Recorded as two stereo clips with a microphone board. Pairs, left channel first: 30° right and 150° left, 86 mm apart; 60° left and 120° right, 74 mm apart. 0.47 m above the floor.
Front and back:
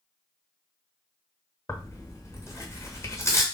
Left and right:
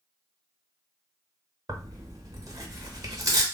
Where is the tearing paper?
85° right, 0.8 m.